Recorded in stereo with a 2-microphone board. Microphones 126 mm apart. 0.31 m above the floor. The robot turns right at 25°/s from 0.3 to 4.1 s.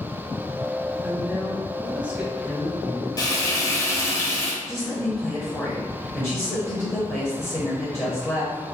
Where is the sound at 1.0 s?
15° right (ahead or behind), 1.0 m; by 3.1 s 5° right (ahead or behind), 1.0 m.